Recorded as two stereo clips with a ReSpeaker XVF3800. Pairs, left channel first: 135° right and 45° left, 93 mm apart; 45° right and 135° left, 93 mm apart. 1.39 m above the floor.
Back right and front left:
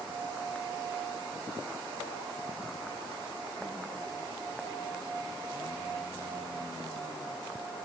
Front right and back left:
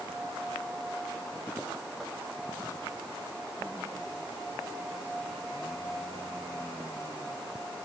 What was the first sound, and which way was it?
Only background noise.